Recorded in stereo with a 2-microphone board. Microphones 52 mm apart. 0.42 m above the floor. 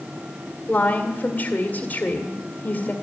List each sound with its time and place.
0.7 s a woman speaking: 35° left (ahead or behind), 1.7 m